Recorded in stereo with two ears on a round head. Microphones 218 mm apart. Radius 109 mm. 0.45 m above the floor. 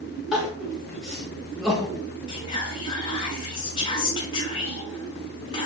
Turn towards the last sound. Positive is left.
turn(degrees=20)  # may be behind; listen again after turning